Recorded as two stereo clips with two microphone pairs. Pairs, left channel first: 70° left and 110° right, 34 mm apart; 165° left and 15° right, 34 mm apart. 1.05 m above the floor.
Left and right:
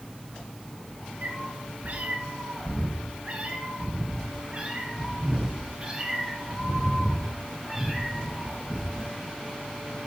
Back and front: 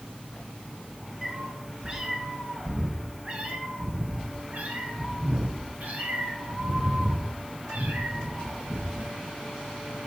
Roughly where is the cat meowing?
Right.